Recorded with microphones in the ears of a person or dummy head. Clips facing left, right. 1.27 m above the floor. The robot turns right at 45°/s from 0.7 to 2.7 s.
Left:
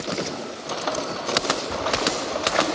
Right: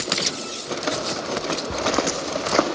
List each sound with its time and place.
1.7 s footsteps: 65° right (ahead or behind), 3 m; by 2.7 s 50° right (ahead or behind), 3 m